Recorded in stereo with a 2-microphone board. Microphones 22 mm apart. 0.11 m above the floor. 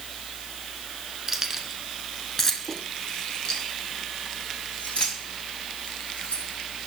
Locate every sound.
1.3 s keys jangling: 20° right (ahead or behind), 1.0 m; by 6.4 s 65° left (ahead or behind), 2.5 m